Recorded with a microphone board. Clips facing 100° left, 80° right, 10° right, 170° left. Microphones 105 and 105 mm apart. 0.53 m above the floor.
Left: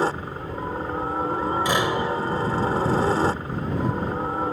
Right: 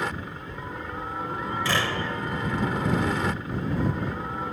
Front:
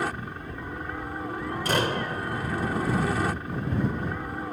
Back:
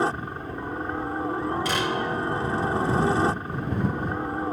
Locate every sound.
0.0 s a helicopter: 125° left
1.6 s a door slam: 30° left